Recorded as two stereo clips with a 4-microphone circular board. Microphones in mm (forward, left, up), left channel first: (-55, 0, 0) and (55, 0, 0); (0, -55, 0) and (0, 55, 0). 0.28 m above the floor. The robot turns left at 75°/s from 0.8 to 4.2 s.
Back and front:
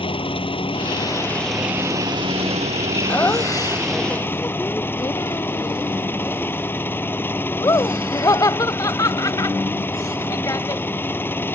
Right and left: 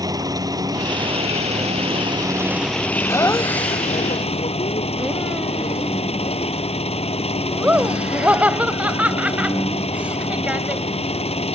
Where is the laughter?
120° right; by 10.8 s 160° left.